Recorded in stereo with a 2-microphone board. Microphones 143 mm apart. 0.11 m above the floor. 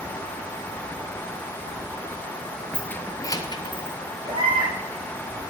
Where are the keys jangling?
5° left (ahead or behind), 1.2 m; by 4.0 s 35° left (ahead or behind), 1.7 m.